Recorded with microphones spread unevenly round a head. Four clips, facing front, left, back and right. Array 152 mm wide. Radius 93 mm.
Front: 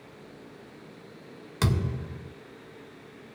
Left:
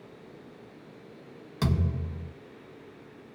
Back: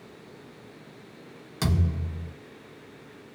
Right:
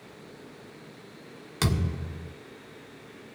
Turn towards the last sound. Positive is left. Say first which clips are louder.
# even, even
turn(degrees=-80)